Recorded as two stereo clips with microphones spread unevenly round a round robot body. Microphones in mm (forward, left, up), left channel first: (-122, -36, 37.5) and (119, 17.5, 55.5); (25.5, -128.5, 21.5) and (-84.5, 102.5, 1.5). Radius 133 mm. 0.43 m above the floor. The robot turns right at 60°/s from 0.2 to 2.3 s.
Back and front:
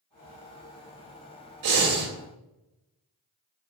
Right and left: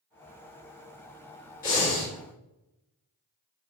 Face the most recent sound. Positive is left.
turn(degrees=35)